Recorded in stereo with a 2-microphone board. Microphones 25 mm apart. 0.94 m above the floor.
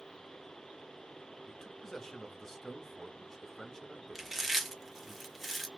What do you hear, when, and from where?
1.5 s a man speaking: 15° left (ahead or behind), 0.9 m
4.2 s chewing: 5° right (ahead or behind), 1.0 m